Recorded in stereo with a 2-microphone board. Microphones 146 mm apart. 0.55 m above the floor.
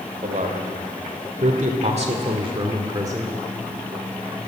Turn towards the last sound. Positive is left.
turn(degrees=-20)  # may be behind; listen again after turning